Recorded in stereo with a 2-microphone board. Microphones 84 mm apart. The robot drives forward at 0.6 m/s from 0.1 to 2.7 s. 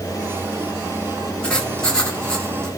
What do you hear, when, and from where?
1.4 s writing: 10° left (ahead or behind), 1.4 m